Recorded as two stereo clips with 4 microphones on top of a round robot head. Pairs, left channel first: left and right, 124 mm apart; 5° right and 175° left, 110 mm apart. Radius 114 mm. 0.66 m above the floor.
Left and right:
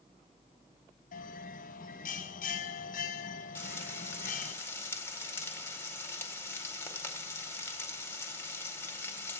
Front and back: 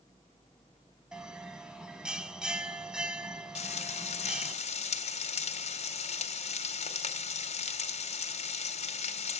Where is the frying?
15° left, 2 m.